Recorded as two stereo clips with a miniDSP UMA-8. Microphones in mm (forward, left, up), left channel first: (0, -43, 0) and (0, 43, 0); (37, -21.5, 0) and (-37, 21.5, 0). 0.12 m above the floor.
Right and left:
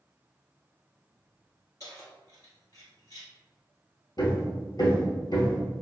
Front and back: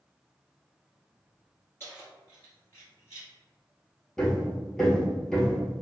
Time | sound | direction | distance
1.8 | keys jangling | 75° right | 1.5 m
4.2 | hammering | 115° right | 1.2 m